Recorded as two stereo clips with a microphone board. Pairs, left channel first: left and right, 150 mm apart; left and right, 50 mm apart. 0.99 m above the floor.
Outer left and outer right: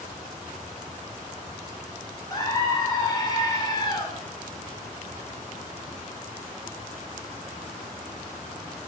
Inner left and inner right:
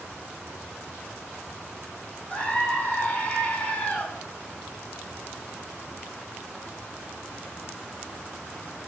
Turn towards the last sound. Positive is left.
turn(degrees=25)  # may be behind; listen again after turning